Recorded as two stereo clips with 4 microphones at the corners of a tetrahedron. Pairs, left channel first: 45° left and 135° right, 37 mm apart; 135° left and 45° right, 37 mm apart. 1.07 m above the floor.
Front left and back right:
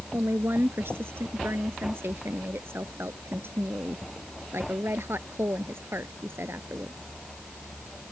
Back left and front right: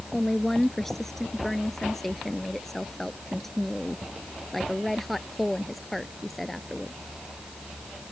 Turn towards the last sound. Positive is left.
turn(degrees=-135)